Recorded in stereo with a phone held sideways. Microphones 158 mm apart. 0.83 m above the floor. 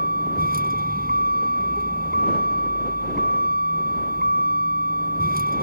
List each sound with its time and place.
0.0 s a vehicle: 70° right (ahead or behind)